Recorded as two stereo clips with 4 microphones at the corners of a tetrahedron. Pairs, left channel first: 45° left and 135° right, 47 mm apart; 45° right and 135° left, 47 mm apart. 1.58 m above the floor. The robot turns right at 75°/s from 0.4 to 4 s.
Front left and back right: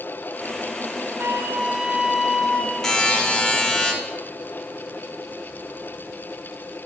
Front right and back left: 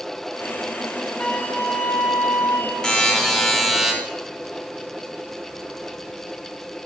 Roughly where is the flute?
Behind right.